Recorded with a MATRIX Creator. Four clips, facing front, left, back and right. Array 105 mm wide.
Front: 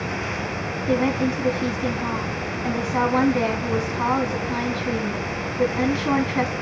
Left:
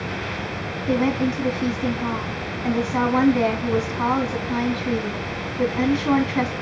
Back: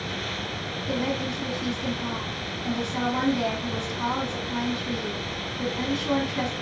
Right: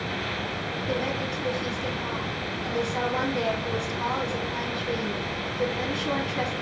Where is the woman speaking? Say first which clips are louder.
Left 10 dB, front 7 dB; 45° left, 1.5 m.